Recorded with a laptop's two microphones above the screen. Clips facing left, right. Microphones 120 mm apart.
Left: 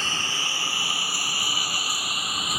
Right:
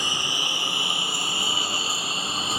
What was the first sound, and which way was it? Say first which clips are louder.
A lawn mower: right 1 dB; 15° right (ahead or behind).